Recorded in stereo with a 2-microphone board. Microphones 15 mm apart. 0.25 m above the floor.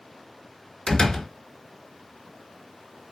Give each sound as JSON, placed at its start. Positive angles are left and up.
{"t": 0.9, "sound": "a door slam", "side_deg": 55, "distance_m": 1.8}